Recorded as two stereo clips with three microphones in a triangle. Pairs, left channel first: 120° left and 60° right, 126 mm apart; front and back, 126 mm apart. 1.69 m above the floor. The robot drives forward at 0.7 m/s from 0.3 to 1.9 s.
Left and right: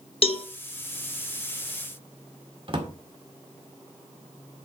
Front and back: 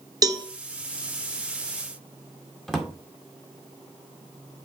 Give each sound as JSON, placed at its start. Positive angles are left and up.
{"t": 0.2, "sound": "a cowbell", "azimuth_deg": 130, "distance_m": 1.1}
{"t": 2.7, "sound": "a drawer", "azimuth_deg": -85, "distance_m": 2.0}